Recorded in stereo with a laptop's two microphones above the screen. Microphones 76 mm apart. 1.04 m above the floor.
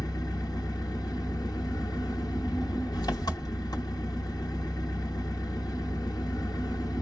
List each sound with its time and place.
0.0 s an engine running: 60° left (ahead or behind), 0.9 m